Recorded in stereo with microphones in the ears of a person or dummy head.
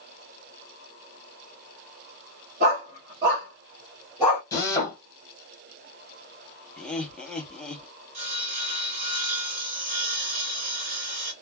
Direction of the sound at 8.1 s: 40° right (ahead or behind).